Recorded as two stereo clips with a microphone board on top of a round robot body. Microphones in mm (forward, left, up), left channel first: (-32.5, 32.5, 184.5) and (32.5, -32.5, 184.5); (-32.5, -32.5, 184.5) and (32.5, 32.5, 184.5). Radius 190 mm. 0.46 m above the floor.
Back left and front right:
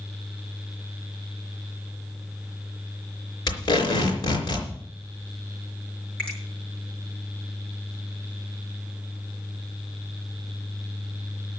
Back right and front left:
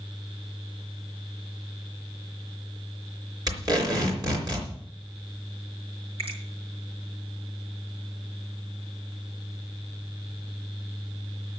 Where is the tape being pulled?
90° left, 4 m.